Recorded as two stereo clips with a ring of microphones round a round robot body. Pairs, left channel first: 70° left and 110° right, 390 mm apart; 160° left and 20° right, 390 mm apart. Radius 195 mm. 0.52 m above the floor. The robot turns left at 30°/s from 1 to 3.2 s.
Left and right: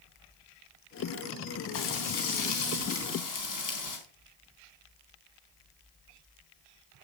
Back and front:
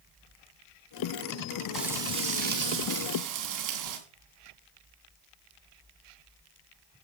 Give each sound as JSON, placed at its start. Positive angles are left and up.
{"t": 1.7, "sound": "frying", "azimuth_deg": 65, "distance_m": 3.5}